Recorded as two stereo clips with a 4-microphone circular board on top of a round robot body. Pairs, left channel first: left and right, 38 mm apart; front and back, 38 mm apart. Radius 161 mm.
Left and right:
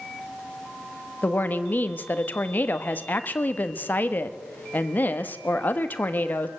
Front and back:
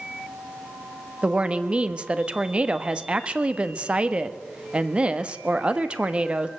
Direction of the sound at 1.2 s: 120° left.